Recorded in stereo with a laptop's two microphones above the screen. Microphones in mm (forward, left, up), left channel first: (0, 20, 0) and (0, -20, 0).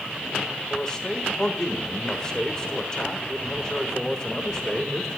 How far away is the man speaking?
About 3 m.